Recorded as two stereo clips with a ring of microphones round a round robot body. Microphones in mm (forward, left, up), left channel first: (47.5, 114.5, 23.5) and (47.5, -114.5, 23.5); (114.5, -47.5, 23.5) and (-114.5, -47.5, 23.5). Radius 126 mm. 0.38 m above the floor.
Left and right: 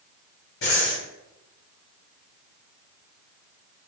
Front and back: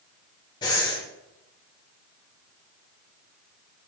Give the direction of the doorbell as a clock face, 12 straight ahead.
No doorbell in this recording.